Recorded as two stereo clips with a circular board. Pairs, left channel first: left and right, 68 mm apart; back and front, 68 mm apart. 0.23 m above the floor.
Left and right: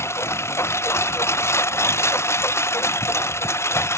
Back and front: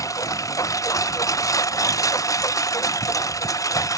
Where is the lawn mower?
140° left.